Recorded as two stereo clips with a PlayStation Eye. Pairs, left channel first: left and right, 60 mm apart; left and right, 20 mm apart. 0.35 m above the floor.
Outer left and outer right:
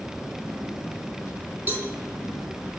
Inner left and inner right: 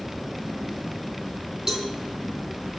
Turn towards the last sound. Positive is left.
turn(degrees=-30)  # may be behind; listen again after turning